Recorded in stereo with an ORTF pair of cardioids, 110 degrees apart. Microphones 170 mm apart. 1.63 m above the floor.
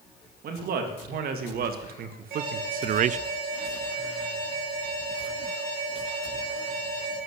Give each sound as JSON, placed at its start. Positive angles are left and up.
{"t": 0.4, "sound": "a man speaking", "azimuth_deg": -65, "distance_m": 3.5}
{"t": 2.3, "sound": "an alarm", "azimuth_deg": -65, "distance_m": 7.5}